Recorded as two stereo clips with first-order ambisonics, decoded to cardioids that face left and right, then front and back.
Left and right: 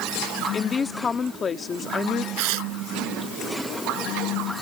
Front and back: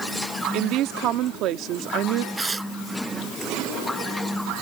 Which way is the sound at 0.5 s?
155° left.